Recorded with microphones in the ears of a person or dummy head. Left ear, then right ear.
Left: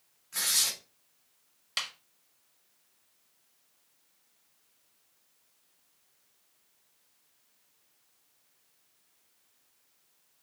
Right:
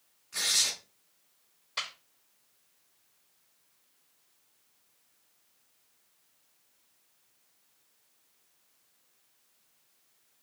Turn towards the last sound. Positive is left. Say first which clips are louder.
# left 2 dB
turn(degrees=50)  # may be behind; listen again after turning